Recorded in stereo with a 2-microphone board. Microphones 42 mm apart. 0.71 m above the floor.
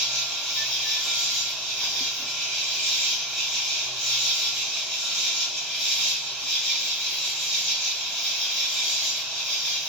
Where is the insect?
5° left (ahead or behind), 2 m.